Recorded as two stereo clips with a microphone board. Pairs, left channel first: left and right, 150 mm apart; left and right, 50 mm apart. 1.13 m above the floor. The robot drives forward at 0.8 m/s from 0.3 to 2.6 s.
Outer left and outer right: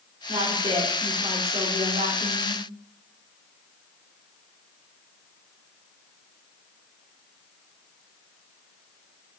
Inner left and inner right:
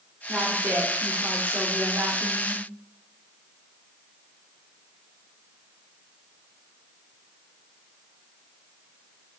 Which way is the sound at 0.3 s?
40° right (ahead or behind).